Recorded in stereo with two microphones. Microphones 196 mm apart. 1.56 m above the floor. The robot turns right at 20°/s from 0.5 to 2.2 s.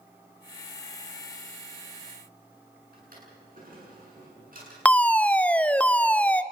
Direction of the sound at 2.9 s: 50° right (ahead or behind).